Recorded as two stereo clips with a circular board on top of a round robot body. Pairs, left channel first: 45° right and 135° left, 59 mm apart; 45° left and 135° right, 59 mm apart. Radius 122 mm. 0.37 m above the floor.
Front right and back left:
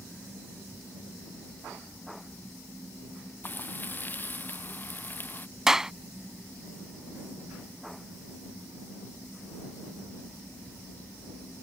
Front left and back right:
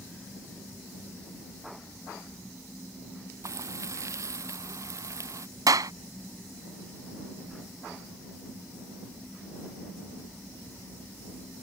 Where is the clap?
145° right.